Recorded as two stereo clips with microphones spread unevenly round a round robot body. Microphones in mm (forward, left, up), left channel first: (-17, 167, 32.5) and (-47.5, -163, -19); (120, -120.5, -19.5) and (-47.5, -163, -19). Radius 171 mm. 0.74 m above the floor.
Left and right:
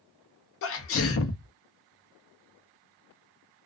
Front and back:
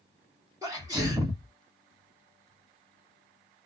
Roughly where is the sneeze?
Behind left.